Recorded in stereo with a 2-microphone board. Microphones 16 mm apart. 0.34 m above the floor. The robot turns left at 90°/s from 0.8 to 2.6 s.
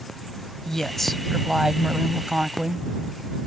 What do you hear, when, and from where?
0.7 s a woman speaking: 40° left; by 2.9 s 125° right